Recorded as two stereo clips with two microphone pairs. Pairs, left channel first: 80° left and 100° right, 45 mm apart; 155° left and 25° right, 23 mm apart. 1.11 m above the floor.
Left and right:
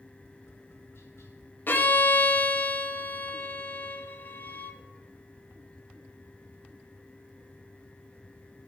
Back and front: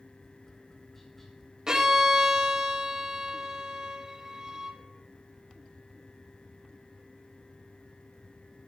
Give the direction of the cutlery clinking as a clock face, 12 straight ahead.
No cutlery clinking in this recording.